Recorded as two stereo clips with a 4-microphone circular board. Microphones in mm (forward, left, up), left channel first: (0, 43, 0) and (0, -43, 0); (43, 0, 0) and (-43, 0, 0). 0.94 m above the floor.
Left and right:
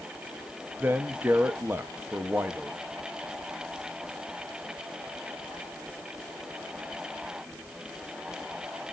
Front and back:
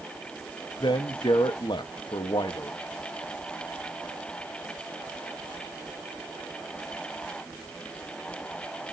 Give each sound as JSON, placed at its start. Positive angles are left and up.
{"t": 0.8, "sound": "a man speaking", "azimuth_deg": -25, "distance_m": 0.8}